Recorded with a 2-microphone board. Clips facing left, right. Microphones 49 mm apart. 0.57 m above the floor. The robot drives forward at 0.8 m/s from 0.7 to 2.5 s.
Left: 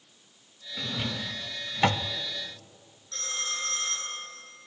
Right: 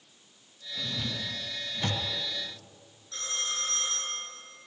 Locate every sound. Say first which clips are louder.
0.8 s a drawer: left 2 dB; 55° left (ahead or behind), 1.4 m; by 2.1 s 75° left (ahead or behind), 1.2 m
3.1 s a phone ringing: left 1 dB; 5° right (ahead or behind), 5.5 m